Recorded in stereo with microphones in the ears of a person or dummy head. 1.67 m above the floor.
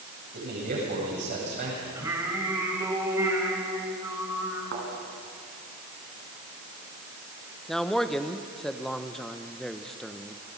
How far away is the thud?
About 5.5 m.